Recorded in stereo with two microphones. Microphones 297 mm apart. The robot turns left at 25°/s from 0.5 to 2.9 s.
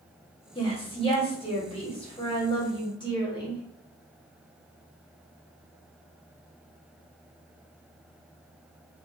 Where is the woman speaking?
15° left (ahead or behind), 0.9 m.